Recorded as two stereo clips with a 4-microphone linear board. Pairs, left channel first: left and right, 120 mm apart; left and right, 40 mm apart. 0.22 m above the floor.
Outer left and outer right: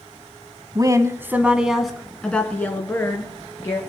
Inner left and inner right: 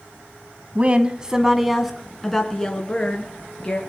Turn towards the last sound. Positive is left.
turn(degrees=25)  # may be behind; listen again after turning